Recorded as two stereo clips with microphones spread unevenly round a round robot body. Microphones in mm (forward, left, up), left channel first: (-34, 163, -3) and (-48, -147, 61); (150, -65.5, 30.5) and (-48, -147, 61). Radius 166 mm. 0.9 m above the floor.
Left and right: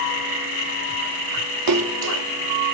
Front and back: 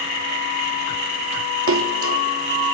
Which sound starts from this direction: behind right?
A splash, at 1.7 s.